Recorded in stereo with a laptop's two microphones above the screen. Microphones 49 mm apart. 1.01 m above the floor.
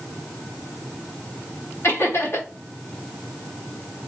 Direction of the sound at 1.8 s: 65° left (ahead or behind).